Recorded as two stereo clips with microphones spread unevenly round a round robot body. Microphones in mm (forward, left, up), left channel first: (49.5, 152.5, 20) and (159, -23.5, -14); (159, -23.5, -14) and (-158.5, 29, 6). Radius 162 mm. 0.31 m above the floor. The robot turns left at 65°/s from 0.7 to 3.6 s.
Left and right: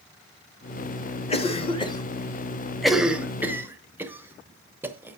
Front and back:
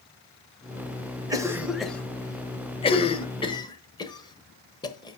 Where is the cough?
105° left, 0.9 m; by 5.2 s 45° right, 0.9 m.